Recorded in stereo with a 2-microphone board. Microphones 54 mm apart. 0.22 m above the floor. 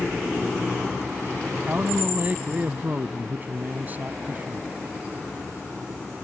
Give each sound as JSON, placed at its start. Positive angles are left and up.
{"t": 1.7, "sound": "a man speaking", "side_deg": -35}